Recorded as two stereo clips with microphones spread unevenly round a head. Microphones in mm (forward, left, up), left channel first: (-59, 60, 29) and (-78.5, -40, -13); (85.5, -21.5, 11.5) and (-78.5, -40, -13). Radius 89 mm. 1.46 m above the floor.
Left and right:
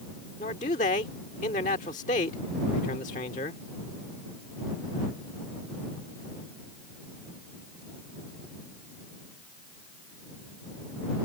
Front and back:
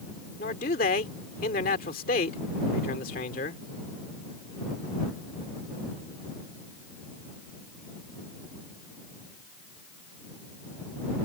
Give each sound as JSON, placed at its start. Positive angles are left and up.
{"t": 0.4, "sound": "a man speaking", "azimuth_deg": 55}